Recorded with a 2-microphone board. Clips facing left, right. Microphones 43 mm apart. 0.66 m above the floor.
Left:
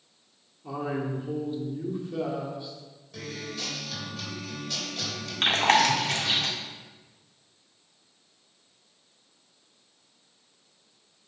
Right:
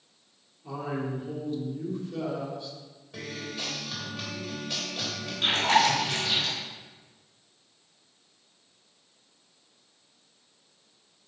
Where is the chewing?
60° left (ahead or behind), 1.8 m.